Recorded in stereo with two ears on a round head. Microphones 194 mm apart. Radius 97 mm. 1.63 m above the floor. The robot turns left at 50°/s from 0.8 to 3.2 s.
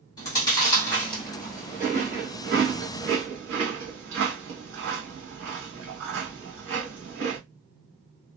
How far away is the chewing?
About 1.5 m.